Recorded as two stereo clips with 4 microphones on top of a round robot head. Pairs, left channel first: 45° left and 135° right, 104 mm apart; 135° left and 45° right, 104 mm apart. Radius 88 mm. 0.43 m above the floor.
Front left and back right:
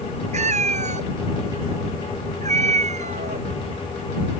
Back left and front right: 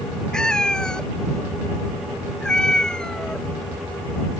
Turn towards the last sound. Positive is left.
turn(degrees=-145)